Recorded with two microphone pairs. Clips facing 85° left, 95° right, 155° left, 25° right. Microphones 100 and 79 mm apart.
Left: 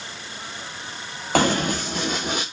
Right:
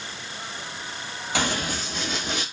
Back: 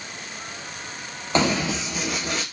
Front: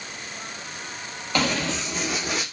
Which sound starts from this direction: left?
Running footsteps, at 1.4 s.